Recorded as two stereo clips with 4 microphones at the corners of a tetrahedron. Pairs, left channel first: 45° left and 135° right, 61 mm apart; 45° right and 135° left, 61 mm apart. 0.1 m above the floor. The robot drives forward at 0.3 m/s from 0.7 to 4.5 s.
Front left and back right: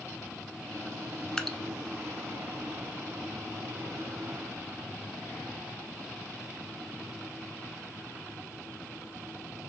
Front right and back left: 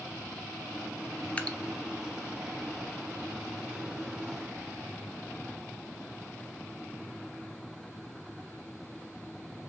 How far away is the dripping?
About 0.6 m.